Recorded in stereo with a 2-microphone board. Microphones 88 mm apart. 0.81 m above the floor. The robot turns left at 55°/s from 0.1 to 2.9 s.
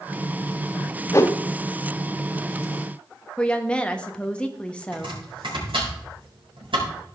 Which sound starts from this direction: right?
Chopping, at 4.9 s.